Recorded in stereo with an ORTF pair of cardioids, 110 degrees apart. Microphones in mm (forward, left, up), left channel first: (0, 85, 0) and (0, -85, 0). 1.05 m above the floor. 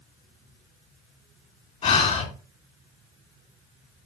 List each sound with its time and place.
1.8 s breathing: 45° left, 2.5 m